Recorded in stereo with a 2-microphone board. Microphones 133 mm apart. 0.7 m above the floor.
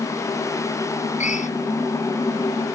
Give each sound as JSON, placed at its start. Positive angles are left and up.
{"t": 1.2, "sound": "a drill", "side_deg": 65}